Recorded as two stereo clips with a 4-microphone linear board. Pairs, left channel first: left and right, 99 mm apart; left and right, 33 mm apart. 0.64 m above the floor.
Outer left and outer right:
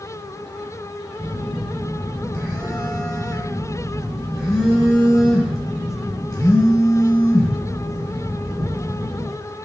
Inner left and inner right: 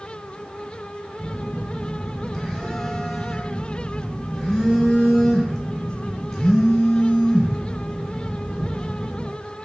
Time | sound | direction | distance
1.2 | a phone buzzing | 5° left (ahead or behind) | 0.9 m